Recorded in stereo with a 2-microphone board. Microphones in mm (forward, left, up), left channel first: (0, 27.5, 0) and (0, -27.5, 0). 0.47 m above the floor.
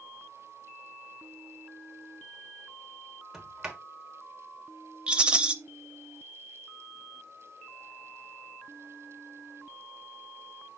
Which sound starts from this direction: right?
A rattle, at 5.1 s.